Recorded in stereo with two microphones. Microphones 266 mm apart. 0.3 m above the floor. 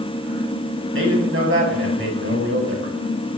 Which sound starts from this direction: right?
A man speaking, at 0.9 s.